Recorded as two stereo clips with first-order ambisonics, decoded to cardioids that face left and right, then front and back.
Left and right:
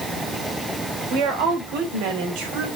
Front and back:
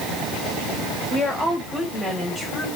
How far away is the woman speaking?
About 3 m.